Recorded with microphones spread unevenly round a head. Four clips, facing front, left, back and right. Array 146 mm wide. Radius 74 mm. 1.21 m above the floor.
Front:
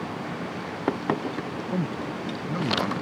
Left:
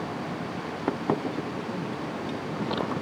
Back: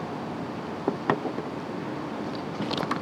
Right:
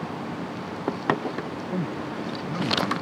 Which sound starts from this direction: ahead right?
A man speaking, at 1.7 s.